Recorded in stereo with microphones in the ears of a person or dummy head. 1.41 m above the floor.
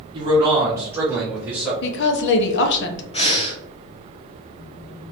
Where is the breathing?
30° left (ahead or behind), 0.7 m.